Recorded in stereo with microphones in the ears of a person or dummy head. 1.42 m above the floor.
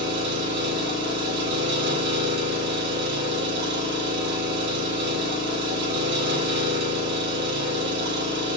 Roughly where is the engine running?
Right.